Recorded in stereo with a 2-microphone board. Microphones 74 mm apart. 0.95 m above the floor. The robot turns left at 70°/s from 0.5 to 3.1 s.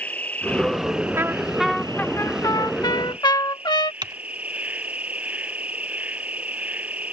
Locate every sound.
0.0 s an insect: 20° left; by 7.1 s 160° right
1.2 s a trumpet: 140° right; by 3.9 s 85° left
4.0 s typing on a keyboard: 70° right (ahead or behind)